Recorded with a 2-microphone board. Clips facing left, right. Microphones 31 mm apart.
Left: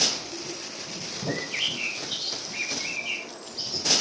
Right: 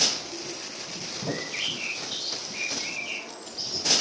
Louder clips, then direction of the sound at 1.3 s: Left 2 dB; 15° left (ahead or behind).